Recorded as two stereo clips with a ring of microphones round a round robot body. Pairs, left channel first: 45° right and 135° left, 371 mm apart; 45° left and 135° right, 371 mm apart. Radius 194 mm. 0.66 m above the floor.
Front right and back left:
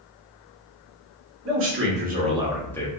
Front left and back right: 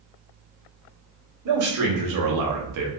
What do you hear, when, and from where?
1.4 s a man speaking: 175° right, 1.5 m; by 2.9 s 120° right, 0.8 m